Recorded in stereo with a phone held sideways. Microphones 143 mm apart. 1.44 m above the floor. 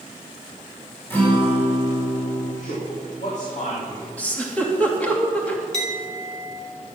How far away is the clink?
About 1.9 m.